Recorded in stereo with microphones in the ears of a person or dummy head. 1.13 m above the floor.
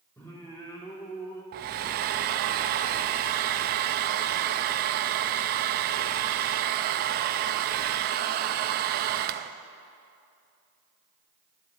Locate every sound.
0.2 s singing: 15° left (ahead or behind), 1.8 m
1.5 s a hair dryer: 50° right (ahead or behind), 0.5 m